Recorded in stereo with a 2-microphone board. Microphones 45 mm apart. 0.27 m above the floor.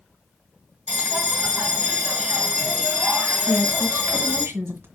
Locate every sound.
0.9 s a bell: 40° right (ahead or behind), 2.5 m
3.5 s a woman speaking: 60° right (ahead or behind), 1.7 m